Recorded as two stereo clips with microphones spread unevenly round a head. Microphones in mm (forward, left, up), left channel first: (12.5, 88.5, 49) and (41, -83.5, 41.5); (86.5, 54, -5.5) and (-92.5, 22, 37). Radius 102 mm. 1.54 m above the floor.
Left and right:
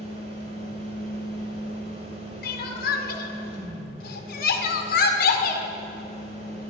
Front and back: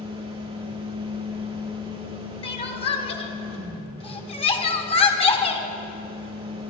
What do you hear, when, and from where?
0.0 s a fan: 135° right, 1.8 m
2.4 s crying: 65° left, 1.3 m